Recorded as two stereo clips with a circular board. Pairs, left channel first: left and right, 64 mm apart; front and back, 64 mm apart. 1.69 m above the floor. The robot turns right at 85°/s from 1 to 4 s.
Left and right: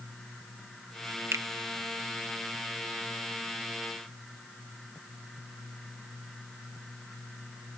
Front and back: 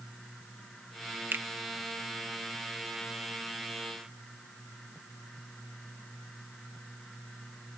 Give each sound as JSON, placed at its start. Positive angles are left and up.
{"t": 1.3, "sound": "a finger snap", "azimuth_deg": -130}